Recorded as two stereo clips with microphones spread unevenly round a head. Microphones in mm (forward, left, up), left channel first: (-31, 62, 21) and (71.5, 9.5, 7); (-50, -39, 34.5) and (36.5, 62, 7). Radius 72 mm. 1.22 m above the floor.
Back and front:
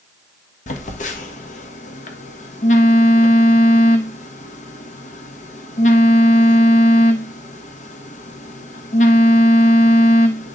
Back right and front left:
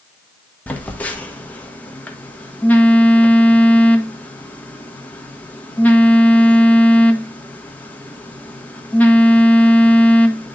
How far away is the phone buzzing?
About 1.3 m.